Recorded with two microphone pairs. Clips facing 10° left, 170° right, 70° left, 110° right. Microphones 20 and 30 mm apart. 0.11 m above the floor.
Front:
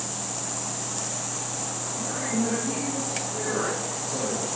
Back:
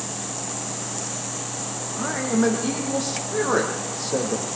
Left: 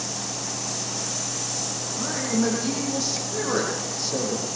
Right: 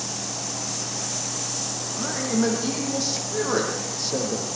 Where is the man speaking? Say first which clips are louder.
Back 6 dB, right 1 dB; 170° left, 5 m.